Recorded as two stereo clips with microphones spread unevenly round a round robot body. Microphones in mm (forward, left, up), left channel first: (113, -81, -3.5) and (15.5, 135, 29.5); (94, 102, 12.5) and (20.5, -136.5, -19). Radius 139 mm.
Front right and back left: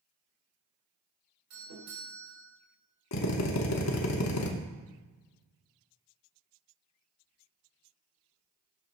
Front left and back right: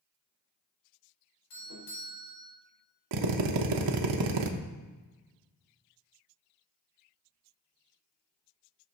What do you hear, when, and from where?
1.5 s a doorbell: 90° left, 3.5 m
3.1 s a drill: 110° right, 0.8 m